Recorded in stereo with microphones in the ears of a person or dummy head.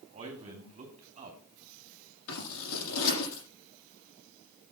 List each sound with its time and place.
0.1 s a man speaking: 35° right (ahead or behind), 3 m
2.3 s scissors: 80° left, 7 m